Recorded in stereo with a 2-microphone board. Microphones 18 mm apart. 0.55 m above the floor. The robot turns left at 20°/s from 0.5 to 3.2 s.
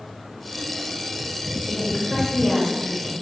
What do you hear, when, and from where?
1.7 s a woman speaking: centre (ahead or behind), 2.5 m; by 3.1 s 25° left (ahead or behind), 2.5 m